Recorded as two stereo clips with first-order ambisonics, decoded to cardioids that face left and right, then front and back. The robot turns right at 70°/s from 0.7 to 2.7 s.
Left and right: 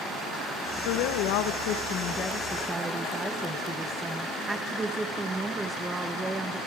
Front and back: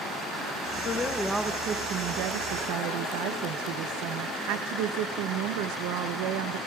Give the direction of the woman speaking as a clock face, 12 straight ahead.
10 o'clock.